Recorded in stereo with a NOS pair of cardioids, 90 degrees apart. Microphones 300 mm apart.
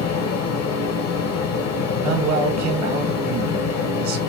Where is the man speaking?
70° right, 1.5 m.